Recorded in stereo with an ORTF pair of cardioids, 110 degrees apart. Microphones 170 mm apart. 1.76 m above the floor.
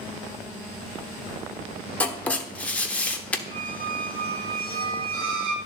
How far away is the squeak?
About 2.5 m.